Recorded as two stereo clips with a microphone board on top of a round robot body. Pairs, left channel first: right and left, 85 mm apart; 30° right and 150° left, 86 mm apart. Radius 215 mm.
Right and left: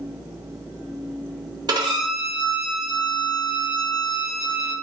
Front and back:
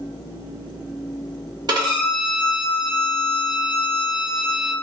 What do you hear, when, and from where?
1.7 s a violin: 120° left, 1.2 m